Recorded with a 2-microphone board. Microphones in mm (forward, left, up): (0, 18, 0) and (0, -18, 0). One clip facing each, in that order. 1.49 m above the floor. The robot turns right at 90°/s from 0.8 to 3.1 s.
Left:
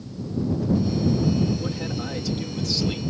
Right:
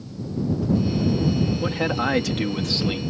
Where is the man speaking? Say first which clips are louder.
Right 6 dB; 140° right; by 3.0 s 15° right.